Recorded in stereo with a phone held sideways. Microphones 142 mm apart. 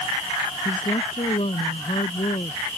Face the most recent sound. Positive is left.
turn(degrees=45)  # may be behind; listen again after turning